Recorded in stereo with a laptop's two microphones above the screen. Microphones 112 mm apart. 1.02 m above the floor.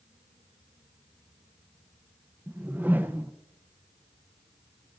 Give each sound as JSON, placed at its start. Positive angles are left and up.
{"t": 2.5, "sound": "a whoosh", "side_deg": -15, "distance_m": 0.7}